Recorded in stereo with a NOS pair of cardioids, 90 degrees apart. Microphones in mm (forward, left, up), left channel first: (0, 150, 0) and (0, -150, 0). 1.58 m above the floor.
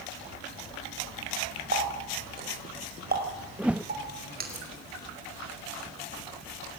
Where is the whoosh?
5° right, 0.6 m.